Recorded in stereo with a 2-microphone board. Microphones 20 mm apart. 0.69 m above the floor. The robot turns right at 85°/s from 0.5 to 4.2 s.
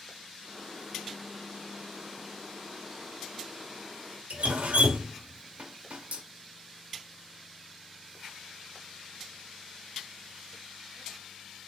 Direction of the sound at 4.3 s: 85° right.